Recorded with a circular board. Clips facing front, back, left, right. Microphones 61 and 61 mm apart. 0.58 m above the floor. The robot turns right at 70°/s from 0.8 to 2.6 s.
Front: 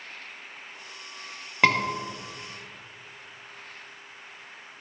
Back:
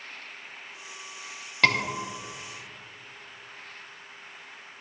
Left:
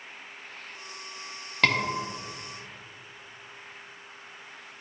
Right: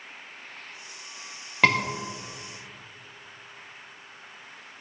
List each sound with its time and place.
1.6 s a scream: 35° right, 0.6 m; by 1.8 s 20° right, 0.6 m